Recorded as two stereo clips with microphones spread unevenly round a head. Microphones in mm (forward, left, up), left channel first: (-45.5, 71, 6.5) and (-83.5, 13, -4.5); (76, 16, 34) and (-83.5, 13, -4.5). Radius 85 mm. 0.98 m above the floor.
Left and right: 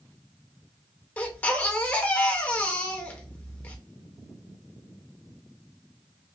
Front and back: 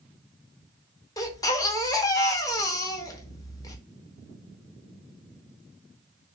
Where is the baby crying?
20° left, 0.7 m.